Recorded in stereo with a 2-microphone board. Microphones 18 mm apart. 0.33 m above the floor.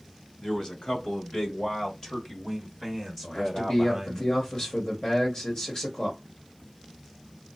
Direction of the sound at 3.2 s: 35° left (ahead or behind).